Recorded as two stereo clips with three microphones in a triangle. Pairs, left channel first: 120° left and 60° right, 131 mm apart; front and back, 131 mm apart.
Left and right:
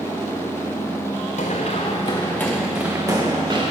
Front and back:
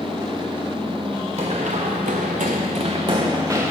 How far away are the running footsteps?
About 1.2 m.